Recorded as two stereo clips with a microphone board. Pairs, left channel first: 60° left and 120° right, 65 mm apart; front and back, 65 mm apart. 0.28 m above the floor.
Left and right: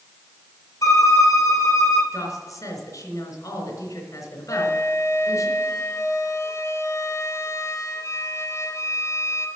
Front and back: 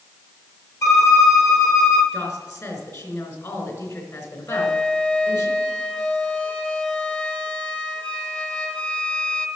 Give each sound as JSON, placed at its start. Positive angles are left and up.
{"t": 0.8, "sound": "a violin", "azimuth_deg": 30, "distance_m": 2.0}
{"t": 2.1, "sound": "a woman speaking", "azimuth_deg": 30, "distance_m": 3.0}
{"t": 4.5, "sound": "a flute", "azimuth_deg": 65, "distance_m": 1.0}